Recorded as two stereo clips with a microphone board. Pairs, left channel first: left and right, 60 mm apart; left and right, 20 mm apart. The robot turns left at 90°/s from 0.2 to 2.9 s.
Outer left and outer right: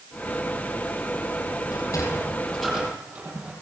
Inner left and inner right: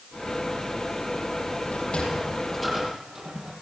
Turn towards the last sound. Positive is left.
turn(degrees=-25)  # may be behind; listen again after turning